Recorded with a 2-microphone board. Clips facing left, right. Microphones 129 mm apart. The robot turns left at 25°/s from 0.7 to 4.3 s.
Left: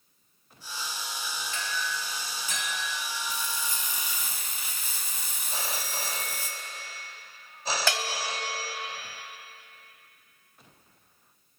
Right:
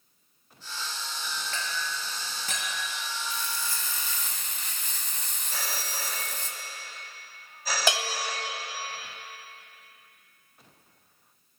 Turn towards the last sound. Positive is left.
turn(degrees=-20)  # may be behind; listen again after turning